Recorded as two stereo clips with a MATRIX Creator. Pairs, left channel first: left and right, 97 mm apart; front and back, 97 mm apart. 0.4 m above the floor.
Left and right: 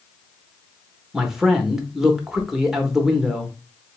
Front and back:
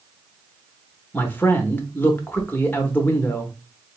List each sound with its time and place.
1.1 s a man speaking: 15° right, 0.8 m